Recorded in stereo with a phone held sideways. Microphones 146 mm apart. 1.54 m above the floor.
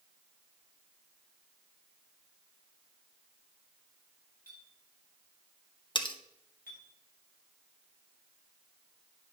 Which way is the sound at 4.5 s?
80° left.